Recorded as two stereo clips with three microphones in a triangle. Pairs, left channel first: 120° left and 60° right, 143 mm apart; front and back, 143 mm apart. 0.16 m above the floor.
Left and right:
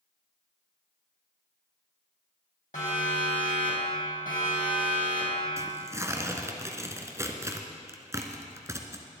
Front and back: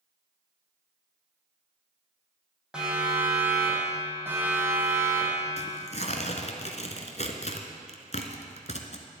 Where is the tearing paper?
5° left, 1.3 m.